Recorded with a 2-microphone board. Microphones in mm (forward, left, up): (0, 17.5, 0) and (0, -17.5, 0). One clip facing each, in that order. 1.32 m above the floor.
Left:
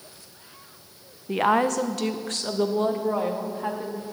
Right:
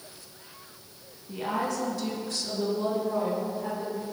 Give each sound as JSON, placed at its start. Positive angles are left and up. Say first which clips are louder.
{"t": 1.3, "sound": "a woman speaking", "louder": "left 9 dB", "side_deg": 80, "distance_m": 0.6}